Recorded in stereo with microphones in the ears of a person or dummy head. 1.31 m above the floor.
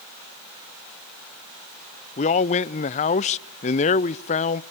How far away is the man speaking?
About 0.5 m.